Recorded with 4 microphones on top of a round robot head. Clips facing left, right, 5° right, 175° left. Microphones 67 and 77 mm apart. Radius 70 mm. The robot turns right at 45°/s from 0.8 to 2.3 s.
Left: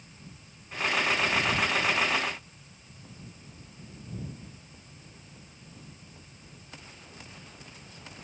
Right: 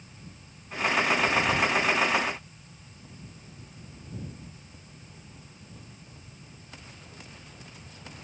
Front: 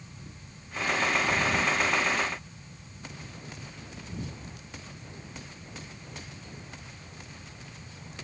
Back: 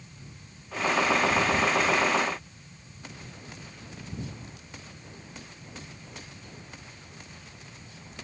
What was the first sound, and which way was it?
Only background noise.